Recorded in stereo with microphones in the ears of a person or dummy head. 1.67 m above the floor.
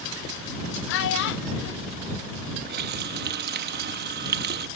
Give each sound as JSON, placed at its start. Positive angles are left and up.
{"t": 0.9, "sound": "a child speaking", "side_deg": 60}
{"t": 2.7, "sound": "a running tap", "side_deg": -55}